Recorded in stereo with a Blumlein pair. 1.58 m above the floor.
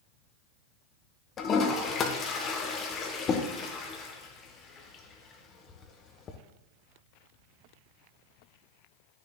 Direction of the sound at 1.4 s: 25° left.